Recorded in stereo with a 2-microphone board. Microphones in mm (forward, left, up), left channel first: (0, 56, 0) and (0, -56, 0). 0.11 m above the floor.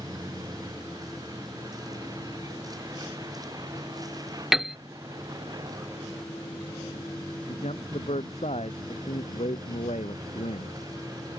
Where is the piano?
5° right (ahead or behind).